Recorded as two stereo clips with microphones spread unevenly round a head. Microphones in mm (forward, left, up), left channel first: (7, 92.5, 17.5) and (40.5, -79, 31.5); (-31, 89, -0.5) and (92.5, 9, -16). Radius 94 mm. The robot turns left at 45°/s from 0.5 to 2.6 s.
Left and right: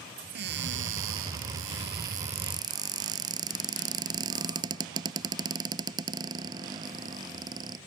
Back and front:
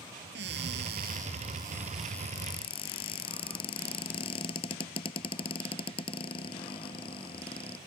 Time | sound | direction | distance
0.3 | a cupboard door | 55° right | ?